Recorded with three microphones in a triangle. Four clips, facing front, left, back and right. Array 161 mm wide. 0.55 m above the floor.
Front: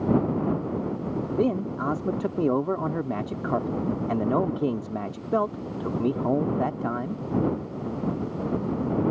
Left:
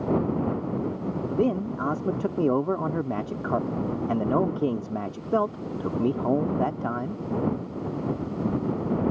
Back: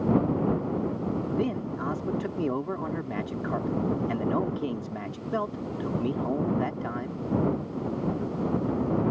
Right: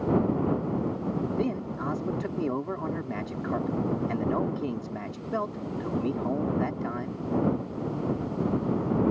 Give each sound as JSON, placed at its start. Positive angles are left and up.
{"t": 1.3, "sound": "a man speaking", "azimuth_deg": 55}